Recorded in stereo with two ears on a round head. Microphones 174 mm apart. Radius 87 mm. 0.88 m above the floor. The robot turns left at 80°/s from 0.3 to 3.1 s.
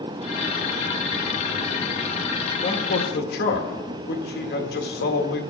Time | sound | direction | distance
2.6 | a man speaking | 145° left | 1.6 m